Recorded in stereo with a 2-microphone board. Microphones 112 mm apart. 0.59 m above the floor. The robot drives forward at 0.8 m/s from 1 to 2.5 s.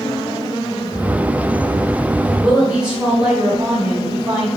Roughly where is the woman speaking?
Centre.